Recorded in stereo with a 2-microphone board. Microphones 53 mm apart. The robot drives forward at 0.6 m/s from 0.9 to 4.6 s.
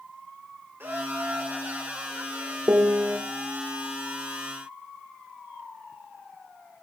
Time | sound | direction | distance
0.8 | laughter | 40° right (ahead or behind) | 2 m
2.7 | a piano | 50° right (ahead or behind) | 1.5 m